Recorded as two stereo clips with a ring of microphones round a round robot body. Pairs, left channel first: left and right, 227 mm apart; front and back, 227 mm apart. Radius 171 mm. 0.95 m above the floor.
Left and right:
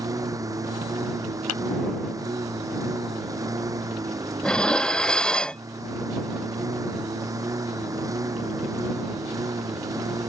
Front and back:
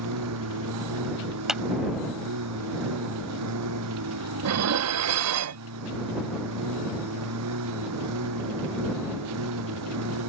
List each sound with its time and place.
0.0 s a lawn mower: 165° right
1.5 s a clap: 90° left
4.4 s dishes clattering: 175° left